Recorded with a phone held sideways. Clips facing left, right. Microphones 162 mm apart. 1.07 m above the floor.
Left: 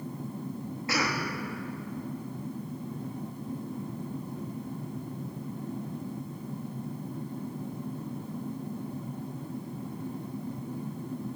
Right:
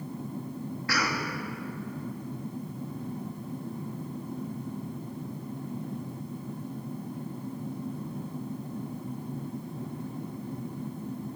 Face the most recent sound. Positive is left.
turn(degrees=20)  # may be behind; listen again after turning